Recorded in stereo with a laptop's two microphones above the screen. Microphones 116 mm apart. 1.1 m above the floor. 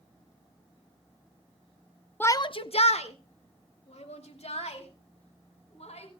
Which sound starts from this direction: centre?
A shout, at 2.2 s.